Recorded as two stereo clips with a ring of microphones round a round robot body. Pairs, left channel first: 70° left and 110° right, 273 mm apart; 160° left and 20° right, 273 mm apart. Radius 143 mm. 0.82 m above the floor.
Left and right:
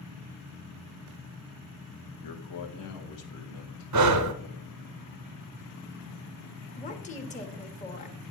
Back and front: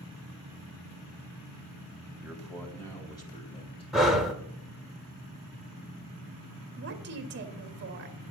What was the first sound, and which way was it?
A man speaking, 60° left.